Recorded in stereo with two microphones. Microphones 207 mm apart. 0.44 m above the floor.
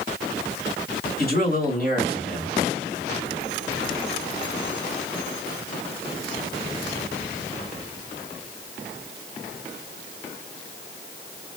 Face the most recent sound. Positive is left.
turn(degrees=50)  # may be behind; listen again after turning